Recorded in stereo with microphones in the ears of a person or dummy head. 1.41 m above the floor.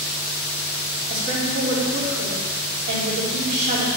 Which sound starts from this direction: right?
A woman speaking, at 1.1 s.